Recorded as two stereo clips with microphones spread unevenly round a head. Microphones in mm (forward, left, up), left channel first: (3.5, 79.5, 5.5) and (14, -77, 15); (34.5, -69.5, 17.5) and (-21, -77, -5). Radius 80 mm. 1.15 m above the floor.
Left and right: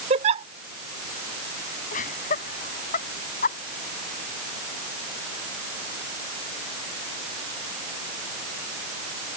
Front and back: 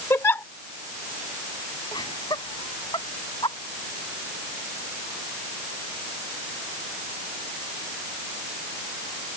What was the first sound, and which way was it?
A giggle, 35° right.